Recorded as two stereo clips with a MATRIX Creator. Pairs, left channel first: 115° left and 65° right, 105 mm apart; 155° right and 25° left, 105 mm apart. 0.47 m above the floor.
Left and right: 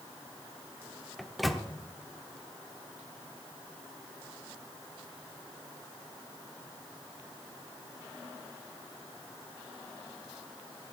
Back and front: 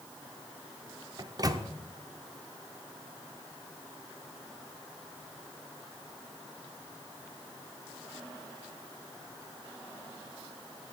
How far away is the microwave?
About 0.6 m.